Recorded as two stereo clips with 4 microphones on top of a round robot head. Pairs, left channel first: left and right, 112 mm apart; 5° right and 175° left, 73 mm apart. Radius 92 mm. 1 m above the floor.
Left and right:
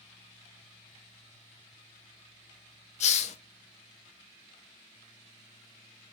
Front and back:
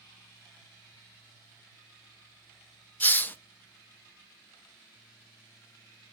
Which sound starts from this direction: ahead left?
A hiss, at 3.0 s.